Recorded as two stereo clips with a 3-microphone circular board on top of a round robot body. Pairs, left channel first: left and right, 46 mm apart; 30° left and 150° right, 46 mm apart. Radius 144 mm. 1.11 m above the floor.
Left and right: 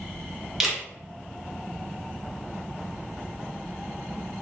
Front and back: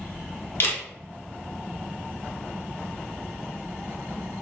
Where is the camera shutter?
5° right, 0.9 m.